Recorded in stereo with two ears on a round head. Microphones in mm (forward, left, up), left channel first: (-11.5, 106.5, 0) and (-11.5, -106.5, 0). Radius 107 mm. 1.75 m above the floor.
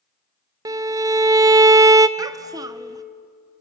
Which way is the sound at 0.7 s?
15° right (ahead or behind).